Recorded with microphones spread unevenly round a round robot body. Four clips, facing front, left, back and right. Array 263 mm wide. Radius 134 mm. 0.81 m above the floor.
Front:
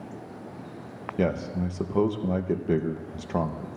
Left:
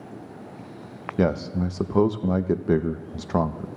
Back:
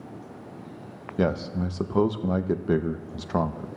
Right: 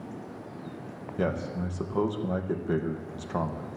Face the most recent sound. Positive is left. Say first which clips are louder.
# left 6 dB, back 1 dB
turn(degrees=105)